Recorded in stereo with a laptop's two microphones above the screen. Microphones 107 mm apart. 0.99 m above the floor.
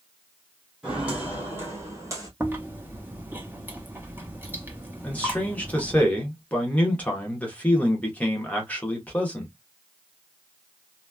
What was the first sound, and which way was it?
Footsteps, 5° right (ahead or behind).